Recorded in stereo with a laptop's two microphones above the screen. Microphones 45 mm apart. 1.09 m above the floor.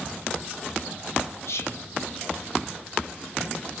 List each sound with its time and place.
1.4 s whispering: 75° left (ahead or behind), 0.6 m